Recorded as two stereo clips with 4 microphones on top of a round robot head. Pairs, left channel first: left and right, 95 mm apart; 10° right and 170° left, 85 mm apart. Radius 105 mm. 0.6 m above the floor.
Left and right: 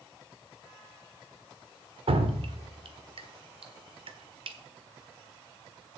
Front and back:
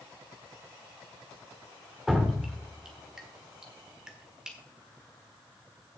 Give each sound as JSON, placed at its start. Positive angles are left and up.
{"t": 2.1, "sound": "dripping", "azimuth_deg": -105, "distance_m": 1.5}